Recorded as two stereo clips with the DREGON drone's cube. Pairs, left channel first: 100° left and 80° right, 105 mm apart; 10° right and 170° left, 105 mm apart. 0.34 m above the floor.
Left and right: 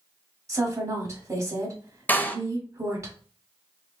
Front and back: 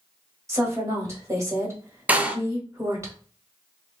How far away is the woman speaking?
About 1.7 m.